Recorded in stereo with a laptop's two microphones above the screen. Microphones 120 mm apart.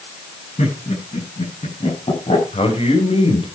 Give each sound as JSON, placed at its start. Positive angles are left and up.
{"t": 0.6, "sound": "laughter", "side_deg": 60, "distance_m": 9.0}
{"t": 2.5, "sound": "a man speaking", "side_deg": 55, "distance_m": 5.5}